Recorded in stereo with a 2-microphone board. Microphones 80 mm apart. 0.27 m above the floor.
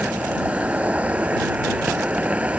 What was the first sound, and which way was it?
An insect, 15° right (ahead or behind).